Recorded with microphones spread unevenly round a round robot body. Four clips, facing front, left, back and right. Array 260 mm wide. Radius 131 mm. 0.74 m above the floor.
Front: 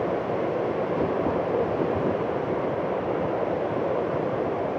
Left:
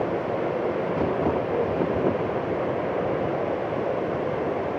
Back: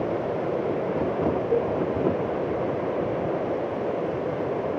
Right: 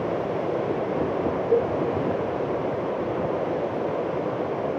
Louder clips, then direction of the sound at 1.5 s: Right 3 dB, back 1 dB; 110° right.